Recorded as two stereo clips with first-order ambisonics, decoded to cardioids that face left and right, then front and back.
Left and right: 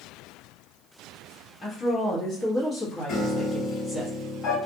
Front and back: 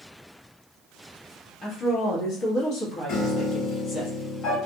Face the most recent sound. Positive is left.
turn(degrees=35)